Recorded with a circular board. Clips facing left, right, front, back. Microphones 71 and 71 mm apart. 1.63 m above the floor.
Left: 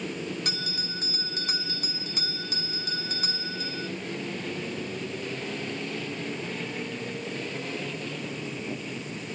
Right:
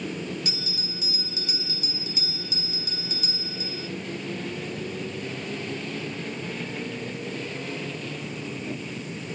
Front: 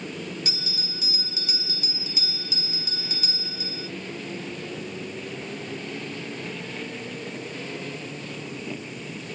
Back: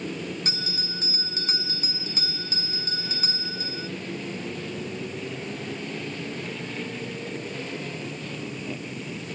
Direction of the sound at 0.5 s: 130° left.